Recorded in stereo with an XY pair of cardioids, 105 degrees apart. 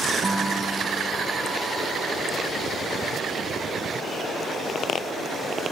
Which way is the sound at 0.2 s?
25° right.